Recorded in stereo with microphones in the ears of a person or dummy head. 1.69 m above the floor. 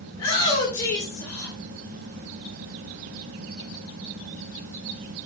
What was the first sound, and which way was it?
A shout, 25° left (ahead or behind).